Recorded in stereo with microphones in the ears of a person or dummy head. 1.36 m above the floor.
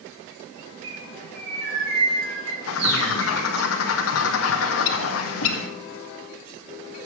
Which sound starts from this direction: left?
A bird, at 2.7 s.